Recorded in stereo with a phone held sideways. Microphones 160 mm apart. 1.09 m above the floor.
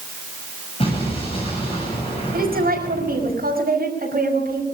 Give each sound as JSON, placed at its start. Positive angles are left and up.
{"t": 0.8, "sound": "an explosion", "side_deg": 35, "distance_m": 8.0}
{"t": 2.3, "sound": "a woman speaking", "side_deg": -70, "distance_m": 5.5}